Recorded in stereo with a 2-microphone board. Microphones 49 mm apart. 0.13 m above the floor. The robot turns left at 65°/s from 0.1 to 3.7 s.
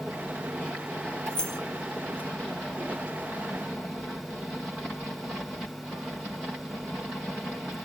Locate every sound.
1.3 s keys jangling: 20° left (ahead or behind), 1.0 m; by 1.6 s 5° left (ahead or behind), 1.0 m